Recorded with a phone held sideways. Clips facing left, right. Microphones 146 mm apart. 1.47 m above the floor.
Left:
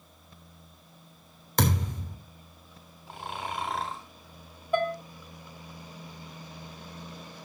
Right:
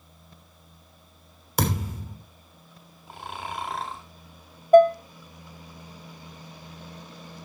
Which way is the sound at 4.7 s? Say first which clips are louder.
Right 13 dB; 45° right (ahead or behind).